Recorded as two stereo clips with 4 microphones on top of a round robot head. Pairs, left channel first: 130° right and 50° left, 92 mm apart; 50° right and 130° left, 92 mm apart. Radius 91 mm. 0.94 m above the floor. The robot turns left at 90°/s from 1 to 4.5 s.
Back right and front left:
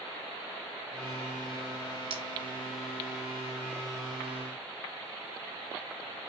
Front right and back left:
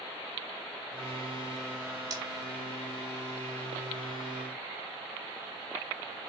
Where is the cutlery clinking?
80° left, 1.1 m; by 2.2 s 70° left, 1.1 m.